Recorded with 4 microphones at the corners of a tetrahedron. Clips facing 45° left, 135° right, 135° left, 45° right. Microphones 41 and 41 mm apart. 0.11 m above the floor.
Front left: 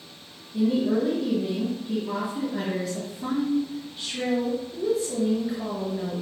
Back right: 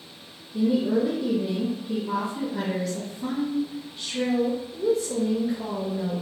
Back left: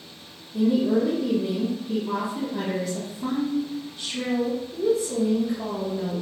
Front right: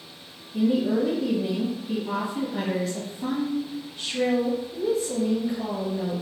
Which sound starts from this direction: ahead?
A woman speaking, at 0.5 s.